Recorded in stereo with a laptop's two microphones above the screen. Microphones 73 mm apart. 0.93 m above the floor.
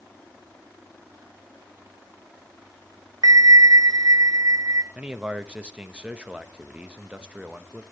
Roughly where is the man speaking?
Centre.